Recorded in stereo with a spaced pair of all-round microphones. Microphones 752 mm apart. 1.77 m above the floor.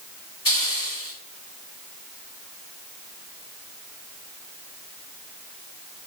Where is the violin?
No violin in this recording.